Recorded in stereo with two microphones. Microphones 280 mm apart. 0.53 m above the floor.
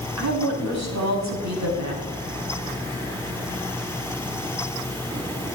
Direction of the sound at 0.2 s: 75° right (ahead or behind).